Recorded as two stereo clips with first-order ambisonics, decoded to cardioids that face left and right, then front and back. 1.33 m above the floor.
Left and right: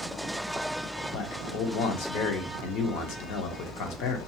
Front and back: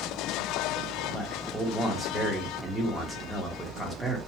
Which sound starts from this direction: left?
A man speaking, at 1.1 s.